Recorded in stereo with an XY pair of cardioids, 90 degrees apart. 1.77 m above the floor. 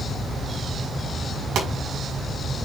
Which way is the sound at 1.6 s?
70° right.